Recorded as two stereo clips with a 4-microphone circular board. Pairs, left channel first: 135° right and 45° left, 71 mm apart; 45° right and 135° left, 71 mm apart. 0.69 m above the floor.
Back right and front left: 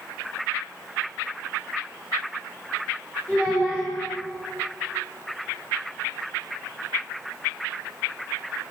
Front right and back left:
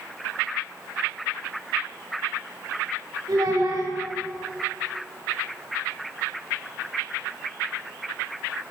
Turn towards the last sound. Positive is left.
turn(degrees=155)